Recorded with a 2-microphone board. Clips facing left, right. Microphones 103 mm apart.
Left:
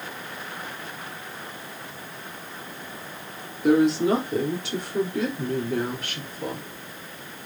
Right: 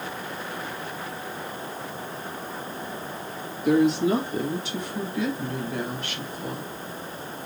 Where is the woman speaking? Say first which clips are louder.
Left 1 dB; 85° left, 4.5 m; by 6.7 s 70° left (ahead or behind), 4.5 m.